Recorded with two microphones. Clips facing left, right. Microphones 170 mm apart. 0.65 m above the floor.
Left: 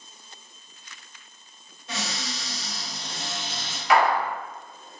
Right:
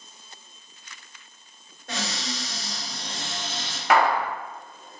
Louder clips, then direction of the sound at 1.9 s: Right 2 dB; 55° right (ahead or behind).